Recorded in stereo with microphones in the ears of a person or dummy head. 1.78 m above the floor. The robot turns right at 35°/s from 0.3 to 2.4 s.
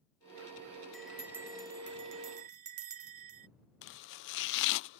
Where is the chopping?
65° left (ahead or behind).